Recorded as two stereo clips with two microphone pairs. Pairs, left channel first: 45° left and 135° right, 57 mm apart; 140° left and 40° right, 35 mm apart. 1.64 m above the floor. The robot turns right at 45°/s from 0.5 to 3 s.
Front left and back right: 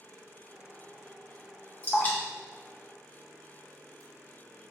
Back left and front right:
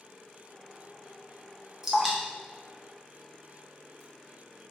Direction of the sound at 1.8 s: 15° left.